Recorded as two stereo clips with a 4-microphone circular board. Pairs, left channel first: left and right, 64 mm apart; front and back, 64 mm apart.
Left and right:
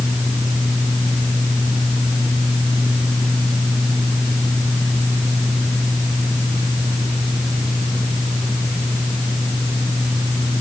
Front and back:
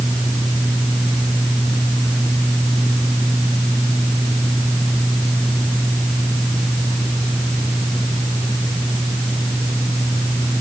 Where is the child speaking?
I don't hear a child speaking.